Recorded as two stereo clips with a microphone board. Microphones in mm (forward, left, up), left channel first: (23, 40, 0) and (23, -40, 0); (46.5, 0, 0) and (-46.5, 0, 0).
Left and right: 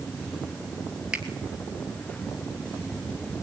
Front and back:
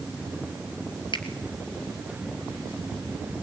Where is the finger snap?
15° right, 2.5 m.